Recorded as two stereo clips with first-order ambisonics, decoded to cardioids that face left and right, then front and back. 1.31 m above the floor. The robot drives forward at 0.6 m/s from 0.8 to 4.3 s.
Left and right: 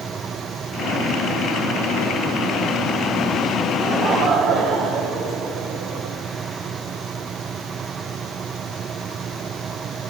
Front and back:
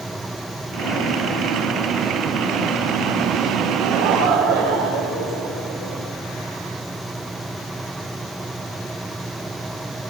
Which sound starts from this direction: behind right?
Laughter, at 3.8 s.